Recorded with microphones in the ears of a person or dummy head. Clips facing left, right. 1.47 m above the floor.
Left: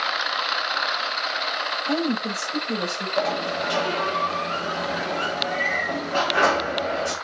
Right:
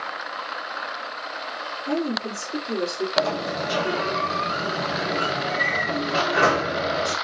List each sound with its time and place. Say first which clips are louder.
1.9 s a woman speaking: left 1 dB; 40° right (ahead or behind), 5 m
3.2 s a sliding door: left 1 dB; 25° right (ahead or behind), 4.5 m